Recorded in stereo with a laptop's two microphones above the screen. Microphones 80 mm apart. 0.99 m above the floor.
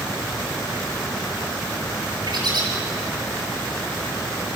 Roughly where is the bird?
Right.